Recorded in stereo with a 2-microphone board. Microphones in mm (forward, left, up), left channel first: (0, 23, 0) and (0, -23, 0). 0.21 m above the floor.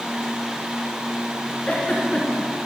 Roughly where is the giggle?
Left.